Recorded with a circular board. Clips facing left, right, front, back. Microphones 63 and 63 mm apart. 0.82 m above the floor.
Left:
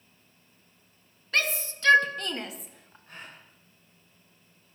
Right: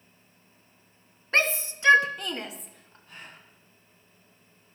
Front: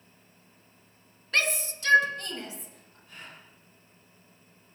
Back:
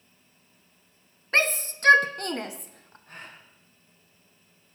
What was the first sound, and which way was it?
A shout, 135° right.